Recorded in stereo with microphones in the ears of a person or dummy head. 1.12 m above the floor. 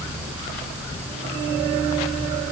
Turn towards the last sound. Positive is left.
No sound to turn to.